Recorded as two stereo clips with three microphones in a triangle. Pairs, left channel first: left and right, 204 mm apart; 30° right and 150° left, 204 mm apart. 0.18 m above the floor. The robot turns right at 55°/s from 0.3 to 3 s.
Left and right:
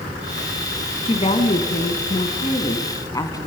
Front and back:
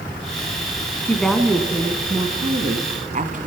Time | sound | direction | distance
1.1 | a woman speaking | 45° left | 1.3 m